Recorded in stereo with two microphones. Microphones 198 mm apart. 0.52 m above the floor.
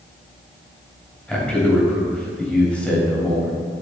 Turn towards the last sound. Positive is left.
turn(degrees=5)  # may be behind; listen again after turning